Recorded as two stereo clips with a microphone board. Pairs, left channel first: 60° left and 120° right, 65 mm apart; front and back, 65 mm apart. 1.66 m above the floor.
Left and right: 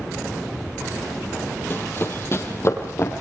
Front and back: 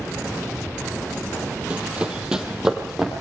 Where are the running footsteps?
110° left, 3 m; by 3.2 s 95° left, 4 m.